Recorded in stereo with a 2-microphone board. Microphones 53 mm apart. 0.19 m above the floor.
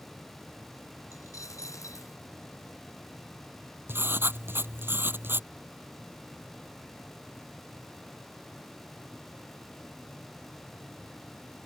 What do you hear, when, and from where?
1.1 s a dropped coin: 80° left
3.9 s writing: 45° right (ahead or behind)